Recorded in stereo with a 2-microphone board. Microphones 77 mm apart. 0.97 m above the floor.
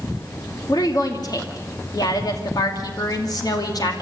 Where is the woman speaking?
60° left (ahead or behind), 2.5 m.